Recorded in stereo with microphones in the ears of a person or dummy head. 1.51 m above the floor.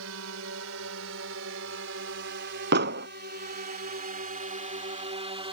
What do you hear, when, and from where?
0.0 s a drone: 75° right (ahead or behind); by 5.5 s 30° right (ahead or behind)
2.7 s an explosion: 55° right (ahead or behind)